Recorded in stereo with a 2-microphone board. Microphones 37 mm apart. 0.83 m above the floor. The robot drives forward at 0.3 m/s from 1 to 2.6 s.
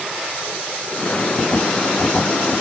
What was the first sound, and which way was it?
Only background noise.